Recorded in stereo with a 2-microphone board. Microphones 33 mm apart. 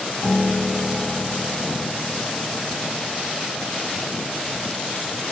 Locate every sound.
0.2 s a piano: 25° left (ahead or behind), 1.9 m